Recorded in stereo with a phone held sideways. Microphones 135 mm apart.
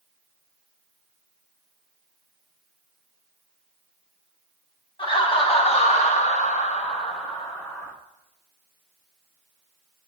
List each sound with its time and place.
5.0 s laughter: 40° left (ahead or behind), 1.5 m; by 7.9 s 20° left (ahead or behind), 1.2 m